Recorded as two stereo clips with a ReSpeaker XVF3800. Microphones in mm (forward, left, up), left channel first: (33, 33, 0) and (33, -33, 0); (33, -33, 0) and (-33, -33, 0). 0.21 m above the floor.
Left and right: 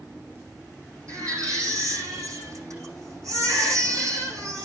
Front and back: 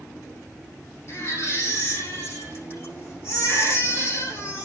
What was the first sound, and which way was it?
A baby crying, 55° right.